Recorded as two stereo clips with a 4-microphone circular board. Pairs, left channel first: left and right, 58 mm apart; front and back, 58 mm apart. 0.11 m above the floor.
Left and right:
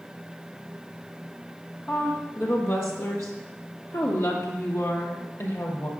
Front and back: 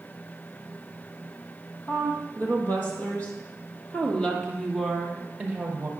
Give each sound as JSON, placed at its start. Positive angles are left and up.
{"t": 1.9, "sound": "a woman speaking", "azimuth_deg": 45, "distance_m": 3.0}